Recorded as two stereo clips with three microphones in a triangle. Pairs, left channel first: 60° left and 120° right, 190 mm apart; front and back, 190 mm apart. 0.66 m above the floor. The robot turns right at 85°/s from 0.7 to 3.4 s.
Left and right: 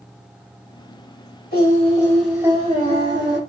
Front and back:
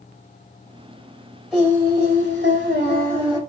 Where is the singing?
90° left, 1.6 m; by 3.4 s 110° right, 1.6 m.